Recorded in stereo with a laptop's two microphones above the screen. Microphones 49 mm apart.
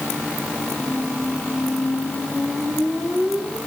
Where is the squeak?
5° right (ahead or behind), 6.5 m.